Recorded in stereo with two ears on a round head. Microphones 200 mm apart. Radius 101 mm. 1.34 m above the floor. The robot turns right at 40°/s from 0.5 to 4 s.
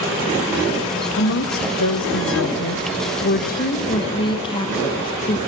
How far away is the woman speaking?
About 0.8 m.